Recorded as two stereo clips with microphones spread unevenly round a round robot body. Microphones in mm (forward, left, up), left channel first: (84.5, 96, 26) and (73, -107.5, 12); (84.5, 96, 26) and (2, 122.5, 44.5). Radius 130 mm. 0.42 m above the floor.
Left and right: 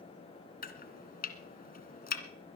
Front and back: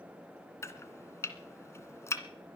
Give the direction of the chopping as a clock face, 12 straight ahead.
11 o'clock.